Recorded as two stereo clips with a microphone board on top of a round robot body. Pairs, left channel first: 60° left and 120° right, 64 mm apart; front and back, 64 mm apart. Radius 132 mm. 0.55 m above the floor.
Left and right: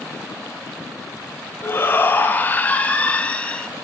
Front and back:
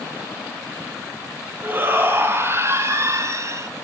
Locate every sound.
1.6 s a shout: 115° left, 4.5 m; by 3.7 s 135° left, 5 m